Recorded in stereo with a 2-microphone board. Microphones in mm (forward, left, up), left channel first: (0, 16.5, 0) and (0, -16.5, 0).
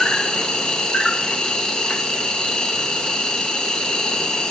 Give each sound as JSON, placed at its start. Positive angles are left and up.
{"t": 0.0, "sound": "an insect", "side_deg": 25, "distance_m": 0.8}